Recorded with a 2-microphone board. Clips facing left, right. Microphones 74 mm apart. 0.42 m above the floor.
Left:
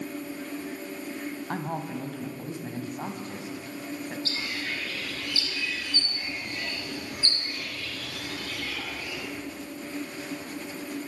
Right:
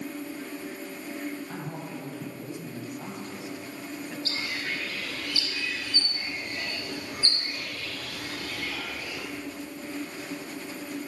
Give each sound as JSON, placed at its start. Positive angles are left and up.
{"t": 1.5, "sound": "a man speaking", "side_deg": 65, "distance_m": 2.5}
{"t": 4.2, "sound": "a bird", "side_deg": -35, "distance_m": 5.0}